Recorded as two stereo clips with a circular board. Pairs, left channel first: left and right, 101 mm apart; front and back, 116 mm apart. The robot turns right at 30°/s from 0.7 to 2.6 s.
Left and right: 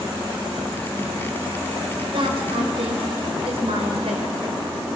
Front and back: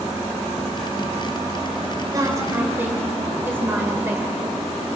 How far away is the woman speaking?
About 4 m.